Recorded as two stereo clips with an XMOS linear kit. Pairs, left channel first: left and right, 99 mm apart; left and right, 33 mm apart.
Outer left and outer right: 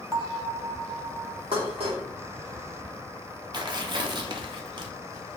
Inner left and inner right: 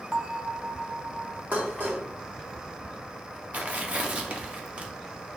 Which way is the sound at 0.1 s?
30° right (ahead or behind).